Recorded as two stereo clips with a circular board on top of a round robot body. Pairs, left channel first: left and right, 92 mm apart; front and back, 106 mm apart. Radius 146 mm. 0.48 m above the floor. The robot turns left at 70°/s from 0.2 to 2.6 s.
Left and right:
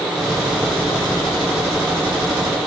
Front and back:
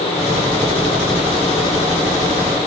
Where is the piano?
I don't hear a piano.